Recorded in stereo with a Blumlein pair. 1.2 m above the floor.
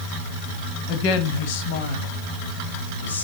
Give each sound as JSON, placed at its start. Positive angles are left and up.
{"t": 0.9, "sound": "a woman speaking", "azimuth_deg": 35, "distance_m": 1.5}